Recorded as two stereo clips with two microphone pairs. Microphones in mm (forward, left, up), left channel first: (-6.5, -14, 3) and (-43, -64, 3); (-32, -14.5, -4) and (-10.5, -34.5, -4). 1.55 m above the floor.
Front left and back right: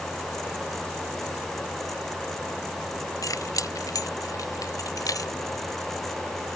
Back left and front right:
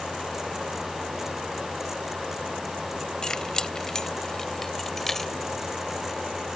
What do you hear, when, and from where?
3.2 s keys jangling: 70° left; by 5.3 s 60° left